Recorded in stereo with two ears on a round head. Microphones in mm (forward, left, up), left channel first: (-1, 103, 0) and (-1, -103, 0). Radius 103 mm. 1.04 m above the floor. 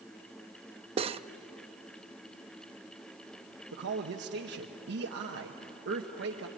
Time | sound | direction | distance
1.0 | cutlery clinking | 25° right (ahead or behind) | 0.5 m
3.7 | a man speaking | 50° right (ahead or behind) | 1.2 m